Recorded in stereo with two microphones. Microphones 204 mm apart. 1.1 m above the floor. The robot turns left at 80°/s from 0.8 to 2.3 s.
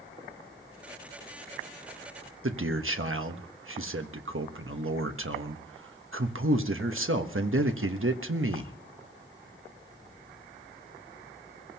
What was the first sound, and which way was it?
A man speaking, 75° right (ahead or behind).